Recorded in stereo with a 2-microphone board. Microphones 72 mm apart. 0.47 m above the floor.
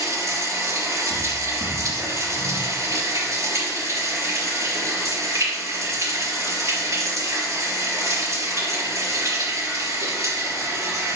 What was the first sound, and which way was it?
Running water, 50° right (ahead or behind).